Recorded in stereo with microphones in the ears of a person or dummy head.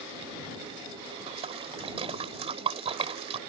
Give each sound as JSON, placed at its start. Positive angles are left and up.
{"t": 1.3, "sound": "a splash", "side_deg": -30}